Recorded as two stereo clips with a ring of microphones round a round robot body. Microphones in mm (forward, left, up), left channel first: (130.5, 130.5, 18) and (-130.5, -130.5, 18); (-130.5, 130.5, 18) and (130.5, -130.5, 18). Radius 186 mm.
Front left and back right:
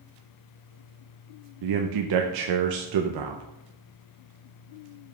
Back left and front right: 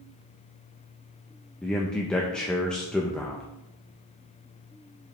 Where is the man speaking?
135° right, 0.6 m.